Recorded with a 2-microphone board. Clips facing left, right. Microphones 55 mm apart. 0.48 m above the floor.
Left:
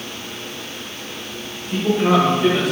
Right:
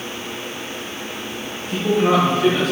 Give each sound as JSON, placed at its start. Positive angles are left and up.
{"t": 1.7, "sound": "a man speaking", "side_deg": 0, "distance_m": 1.9}